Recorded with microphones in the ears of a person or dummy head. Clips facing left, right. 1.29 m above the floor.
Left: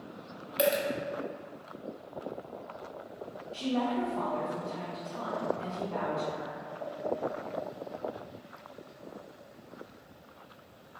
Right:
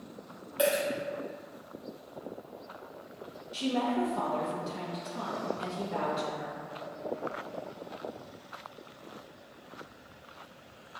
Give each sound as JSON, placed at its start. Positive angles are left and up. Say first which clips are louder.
{"t": 0.6, "sound": "a dropped coin", "louder": "even", "side_deg": 25, "distance_m": 1.1}
{"t": 3.5, "sound": "a woman speaking", "louder": "right 1 dB", "side_deg": -20, "distance_m": 0.8}